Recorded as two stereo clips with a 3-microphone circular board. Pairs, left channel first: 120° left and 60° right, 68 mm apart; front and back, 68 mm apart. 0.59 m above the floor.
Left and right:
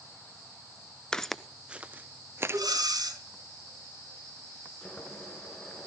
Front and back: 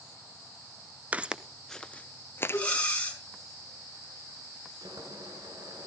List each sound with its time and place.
1.1 s footsteps: straight behind, 0.5 m; by 2.6 s 30° right, 0.8 m
2.5 s breathing: 70° right, 3.5 m
4.8 s boiling: 165° right, 3.5 m